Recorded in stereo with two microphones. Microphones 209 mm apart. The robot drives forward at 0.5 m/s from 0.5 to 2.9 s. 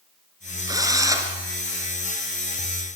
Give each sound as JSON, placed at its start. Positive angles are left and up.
{"t": 0.7, "sound": "a drill", "side_deg": -15, "distance_m": 3.0}